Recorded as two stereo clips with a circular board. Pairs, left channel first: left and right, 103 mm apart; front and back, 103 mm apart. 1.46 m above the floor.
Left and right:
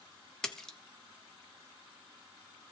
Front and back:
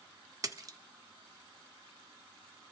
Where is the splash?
170° left, 0.6 m.